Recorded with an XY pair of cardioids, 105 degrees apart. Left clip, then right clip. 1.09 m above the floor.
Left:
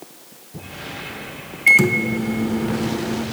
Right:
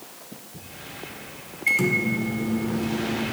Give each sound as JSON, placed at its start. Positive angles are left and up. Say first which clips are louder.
{"t": 1.7, "sound": "a microwave", "louder": "left 8 dB", "azimuth_deg": 60, "distance_m": 0.6}